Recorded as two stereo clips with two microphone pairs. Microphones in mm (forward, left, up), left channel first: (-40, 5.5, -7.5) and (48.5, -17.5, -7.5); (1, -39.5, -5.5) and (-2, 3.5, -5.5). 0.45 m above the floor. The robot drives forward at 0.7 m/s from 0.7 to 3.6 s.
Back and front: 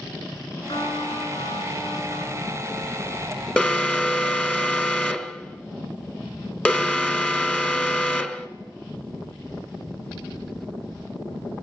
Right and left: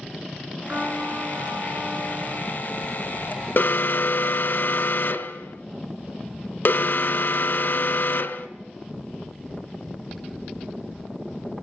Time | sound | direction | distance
0.7 | a trumpet | 145° left | 5 m
3.6 | an alarm | 120° right | 1.1 m